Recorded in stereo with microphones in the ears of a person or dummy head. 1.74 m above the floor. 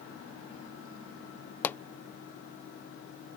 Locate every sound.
1.6 s a pop: 10° left (ahead or behind)